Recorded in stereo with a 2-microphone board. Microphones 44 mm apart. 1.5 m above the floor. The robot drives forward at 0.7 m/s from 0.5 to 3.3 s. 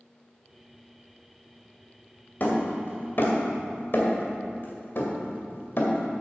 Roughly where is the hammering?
Left.